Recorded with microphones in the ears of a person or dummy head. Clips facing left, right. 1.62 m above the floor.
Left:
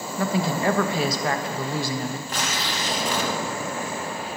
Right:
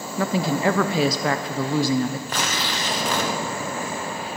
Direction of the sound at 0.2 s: 70° right (ahead or behind).